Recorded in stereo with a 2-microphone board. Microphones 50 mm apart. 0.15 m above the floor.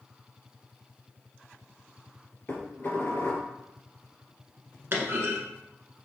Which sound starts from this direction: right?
A clunk, at 4.9 s.